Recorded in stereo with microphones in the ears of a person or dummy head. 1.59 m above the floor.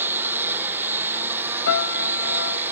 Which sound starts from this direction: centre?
A lawn mower, at 0.0 s.